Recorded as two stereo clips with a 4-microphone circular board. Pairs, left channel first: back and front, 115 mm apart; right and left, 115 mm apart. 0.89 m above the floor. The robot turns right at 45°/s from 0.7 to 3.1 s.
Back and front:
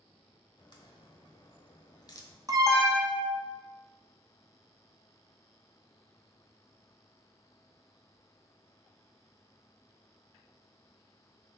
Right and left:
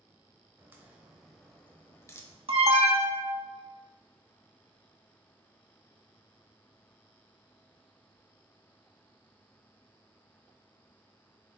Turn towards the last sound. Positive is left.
turn(degrees=85)